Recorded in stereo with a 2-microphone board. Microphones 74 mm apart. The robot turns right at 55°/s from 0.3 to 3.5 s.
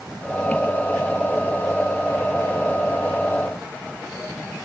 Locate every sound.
Only background noise.